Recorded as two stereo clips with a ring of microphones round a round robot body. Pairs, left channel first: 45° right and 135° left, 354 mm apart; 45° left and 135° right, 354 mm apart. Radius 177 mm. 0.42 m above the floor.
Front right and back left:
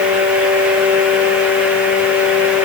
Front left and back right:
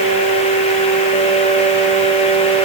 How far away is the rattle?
No rattle in this recording.